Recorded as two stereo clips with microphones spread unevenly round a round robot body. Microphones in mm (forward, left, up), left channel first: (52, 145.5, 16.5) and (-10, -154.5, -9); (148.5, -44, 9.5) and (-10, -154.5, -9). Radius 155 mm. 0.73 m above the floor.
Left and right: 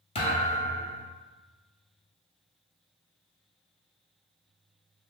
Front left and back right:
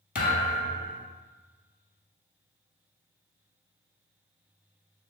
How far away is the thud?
About 1.3 m.